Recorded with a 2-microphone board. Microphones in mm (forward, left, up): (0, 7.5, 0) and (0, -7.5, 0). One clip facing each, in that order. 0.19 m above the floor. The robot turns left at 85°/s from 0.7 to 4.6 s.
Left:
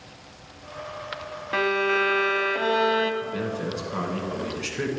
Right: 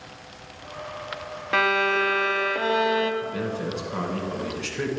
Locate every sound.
1.5 s a violin: 20° right (ahead or behind), 0.8 m; by 3.1 s 15° left (ahead or behind), 0.8 m
3.2 s a man speaking: 145° right, 1.5 m; by 4.9 s 100° left, 1.5 m